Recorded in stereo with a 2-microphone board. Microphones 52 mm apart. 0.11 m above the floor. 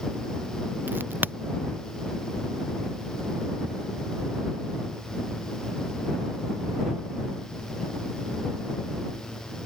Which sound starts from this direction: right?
A crack, at 0.9 s.